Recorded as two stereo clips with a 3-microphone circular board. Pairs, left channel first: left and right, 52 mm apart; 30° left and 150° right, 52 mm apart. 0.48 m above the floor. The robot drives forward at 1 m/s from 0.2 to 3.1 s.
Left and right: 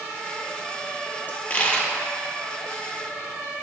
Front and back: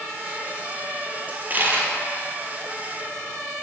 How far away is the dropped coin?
About 0.9 m.